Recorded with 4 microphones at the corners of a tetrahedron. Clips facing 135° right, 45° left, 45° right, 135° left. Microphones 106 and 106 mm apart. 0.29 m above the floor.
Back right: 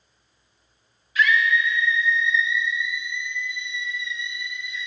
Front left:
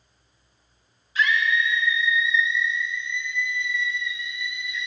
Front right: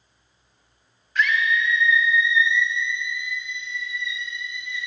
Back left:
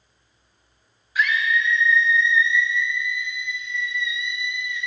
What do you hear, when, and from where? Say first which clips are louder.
1.1 s a scream: back right 2 dB, even; 60° left, 1.5 m; by 4.9 s 90° right, 2.5 m